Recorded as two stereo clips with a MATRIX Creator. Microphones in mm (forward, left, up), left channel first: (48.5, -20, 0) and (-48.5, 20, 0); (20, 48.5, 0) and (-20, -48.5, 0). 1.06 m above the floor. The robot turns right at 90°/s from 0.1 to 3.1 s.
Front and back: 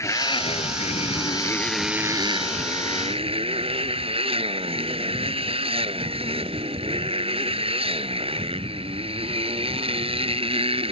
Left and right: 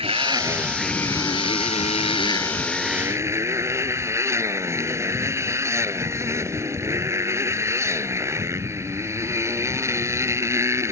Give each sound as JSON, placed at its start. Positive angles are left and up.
{"t": 0.0, "sound": "a motorcycle", "azimuth_deg": -85}